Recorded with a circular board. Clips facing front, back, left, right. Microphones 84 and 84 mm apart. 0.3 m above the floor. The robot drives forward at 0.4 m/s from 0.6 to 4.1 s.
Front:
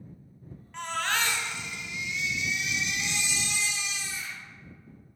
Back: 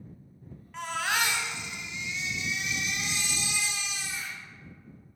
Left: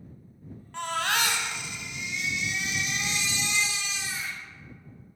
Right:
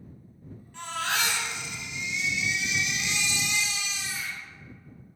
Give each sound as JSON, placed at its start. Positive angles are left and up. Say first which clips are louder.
{"t": 0.7, "sound": "a baby crying", "louder": "even, left 3 dB", "azimuth_deg": 90, "distance_m": 1.0}